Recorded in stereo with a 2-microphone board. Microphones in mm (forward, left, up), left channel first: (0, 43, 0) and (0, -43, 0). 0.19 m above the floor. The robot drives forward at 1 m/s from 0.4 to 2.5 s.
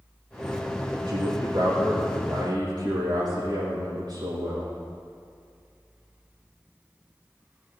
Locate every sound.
1.1 s a man speaking: 75° right (ahead or behind), 6.5 m; by 4.7 s 70° right (ahead or behind), 7 m